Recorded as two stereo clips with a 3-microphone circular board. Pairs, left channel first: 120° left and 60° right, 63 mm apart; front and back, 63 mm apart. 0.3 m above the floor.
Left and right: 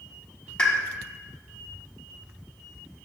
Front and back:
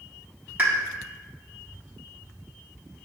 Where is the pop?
175° left, 1.2 m.